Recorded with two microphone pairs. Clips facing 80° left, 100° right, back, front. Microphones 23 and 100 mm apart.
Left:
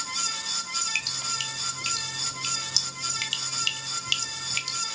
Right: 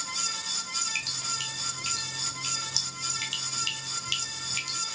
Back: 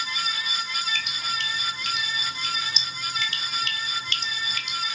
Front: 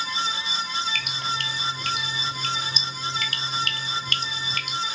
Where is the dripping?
20° left, 0.9 m.